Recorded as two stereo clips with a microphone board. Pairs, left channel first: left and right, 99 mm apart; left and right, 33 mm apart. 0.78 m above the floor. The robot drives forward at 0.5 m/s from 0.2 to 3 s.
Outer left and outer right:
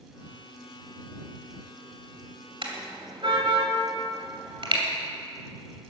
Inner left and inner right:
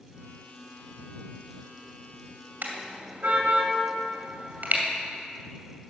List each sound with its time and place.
2.6 s a car horn: 65° right (ahead or behind), 2 m; by 4.8 s 60° right (ahead or behind), 2 m